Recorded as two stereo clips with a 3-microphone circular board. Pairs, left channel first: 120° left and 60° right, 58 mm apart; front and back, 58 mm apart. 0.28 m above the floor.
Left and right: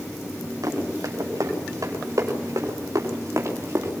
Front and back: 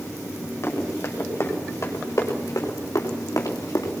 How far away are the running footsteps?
About 5.5 m.